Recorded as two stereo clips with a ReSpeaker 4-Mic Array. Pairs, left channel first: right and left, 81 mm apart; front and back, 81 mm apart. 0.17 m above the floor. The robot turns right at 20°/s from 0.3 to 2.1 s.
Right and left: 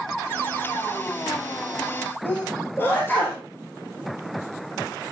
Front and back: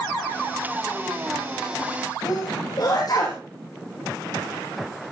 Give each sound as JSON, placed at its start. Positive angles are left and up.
{"t": 2.2, "sound": "a sneeze", "azimuth_deg": -30, "distance_m": 3.5}